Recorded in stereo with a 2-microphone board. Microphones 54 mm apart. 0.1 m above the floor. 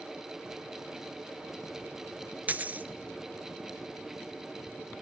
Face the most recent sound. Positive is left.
turn(degrees=-30)  # may be behind; listen again after turning